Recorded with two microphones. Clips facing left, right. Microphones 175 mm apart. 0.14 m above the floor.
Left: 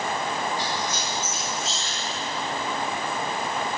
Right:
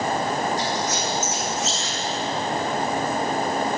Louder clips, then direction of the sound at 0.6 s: Right 4 dB; 75° right (ahead or behind).